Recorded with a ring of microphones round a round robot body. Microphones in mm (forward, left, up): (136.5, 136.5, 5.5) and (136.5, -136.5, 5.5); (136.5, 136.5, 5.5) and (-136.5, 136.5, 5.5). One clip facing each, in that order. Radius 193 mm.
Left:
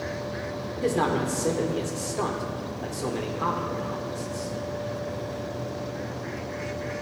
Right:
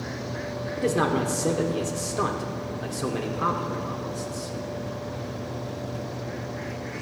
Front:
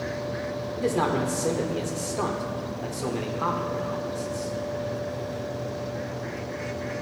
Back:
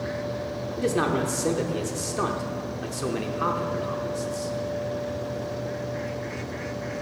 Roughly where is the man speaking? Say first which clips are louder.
Right 1 dB, back 1 dB; behind right.